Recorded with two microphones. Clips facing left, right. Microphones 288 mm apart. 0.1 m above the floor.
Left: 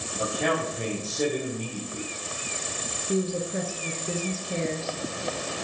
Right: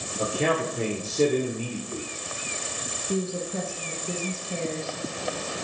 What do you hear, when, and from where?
0.2 s a man speaking: 30° right (ahead or behind), 1.9 m
3.1 s a woman speaking: 20° left (ahead or behind), 1.3 m